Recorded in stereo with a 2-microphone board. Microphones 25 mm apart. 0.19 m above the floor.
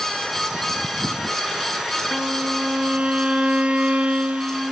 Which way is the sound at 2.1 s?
55° right (ahead or behind).